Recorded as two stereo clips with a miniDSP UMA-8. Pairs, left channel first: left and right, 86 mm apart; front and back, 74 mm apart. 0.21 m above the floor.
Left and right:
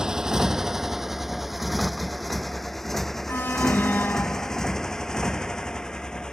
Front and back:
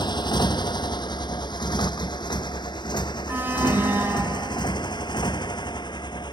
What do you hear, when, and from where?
0.0 s a motorcycle: 5° right; by 6.3 s 10° left
3.3 s an alarm: 140° left